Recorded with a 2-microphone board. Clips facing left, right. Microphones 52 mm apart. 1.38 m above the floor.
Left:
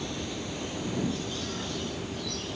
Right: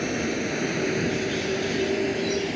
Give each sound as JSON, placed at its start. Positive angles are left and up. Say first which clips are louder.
{"t": 0.0, "sound": "a vehicle", "louder": "right 9 dB", "side_deg": -55}